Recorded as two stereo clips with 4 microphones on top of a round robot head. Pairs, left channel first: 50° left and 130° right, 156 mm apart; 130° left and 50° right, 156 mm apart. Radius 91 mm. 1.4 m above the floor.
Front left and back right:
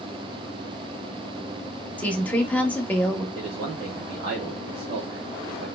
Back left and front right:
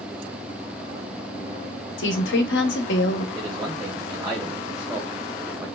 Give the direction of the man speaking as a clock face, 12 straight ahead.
4 o'clock.